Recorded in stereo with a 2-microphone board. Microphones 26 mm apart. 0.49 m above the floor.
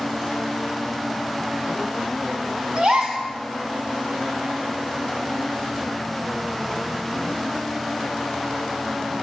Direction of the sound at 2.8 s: 50° right (ahead or behind).